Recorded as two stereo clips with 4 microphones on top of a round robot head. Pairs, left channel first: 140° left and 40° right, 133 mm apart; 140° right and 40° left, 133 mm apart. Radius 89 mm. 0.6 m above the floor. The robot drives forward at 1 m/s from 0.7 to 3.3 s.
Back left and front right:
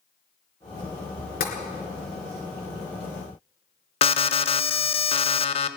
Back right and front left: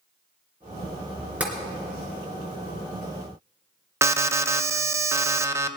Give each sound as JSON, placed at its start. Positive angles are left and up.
{"t": 1.4, "sound": "tapping", "azimuth_deg": 120, "distance_m": 3.0}
{"t": 4.0, "sound": "an alarm", "azimuth_deg": 110, "distance_m": 0.7}